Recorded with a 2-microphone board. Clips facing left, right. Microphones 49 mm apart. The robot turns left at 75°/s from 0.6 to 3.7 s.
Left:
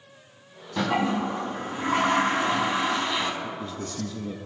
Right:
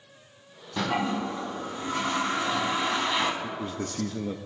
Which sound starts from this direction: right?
A man speaking, at 3.4 s.